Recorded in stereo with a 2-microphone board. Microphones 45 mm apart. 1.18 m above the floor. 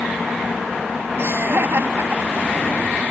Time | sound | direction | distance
1.2 | laughter | 65° right (ahead or behind) | ?